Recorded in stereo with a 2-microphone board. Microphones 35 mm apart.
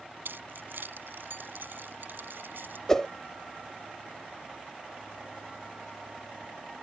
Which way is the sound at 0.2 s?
85° right.